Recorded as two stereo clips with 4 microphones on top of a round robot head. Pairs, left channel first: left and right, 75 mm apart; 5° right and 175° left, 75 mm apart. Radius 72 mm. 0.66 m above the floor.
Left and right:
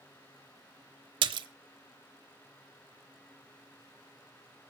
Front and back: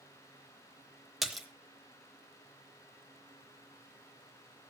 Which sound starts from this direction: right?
A splash, at 1.2 s.